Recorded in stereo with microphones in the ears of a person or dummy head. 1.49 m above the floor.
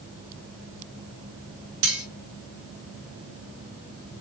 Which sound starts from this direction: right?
Cutlery clinking, at 1.8 s.